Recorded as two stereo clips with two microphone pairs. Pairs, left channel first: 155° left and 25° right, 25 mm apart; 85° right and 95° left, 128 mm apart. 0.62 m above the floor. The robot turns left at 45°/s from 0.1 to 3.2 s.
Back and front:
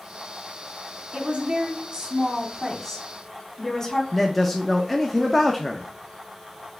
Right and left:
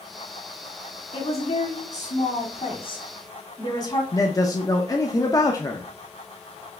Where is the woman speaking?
45° right, 1.7 m; by 4.0 s 140° right, 1.7 m.